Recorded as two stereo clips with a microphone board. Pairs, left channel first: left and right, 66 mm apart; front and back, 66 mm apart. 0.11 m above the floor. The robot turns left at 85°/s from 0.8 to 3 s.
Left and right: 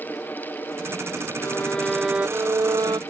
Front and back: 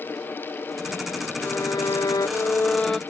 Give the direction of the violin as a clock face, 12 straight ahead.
10 o'clock.